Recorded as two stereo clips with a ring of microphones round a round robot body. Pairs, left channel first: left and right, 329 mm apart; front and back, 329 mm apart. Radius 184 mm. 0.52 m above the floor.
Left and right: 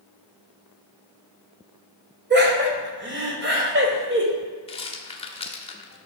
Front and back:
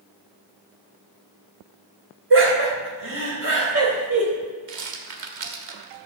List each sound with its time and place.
2.3 s laughter: 140° right, 2.0 m
4.7 s a rattle: 160° left, 1.5 m